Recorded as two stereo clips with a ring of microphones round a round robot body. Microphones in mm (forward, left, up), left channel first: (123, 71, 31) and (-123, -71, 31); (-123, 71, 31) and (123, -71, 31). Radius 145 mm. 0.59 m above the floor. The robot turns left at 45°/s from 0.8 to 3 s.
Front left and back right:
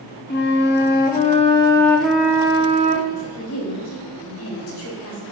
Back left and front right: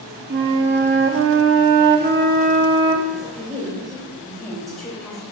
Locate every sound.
0.3 s a flute: 5° right, 0.6 m; by 3.0 s 105° right, 0.6 m
3.1 s a woman speaking: 60° left, 3 m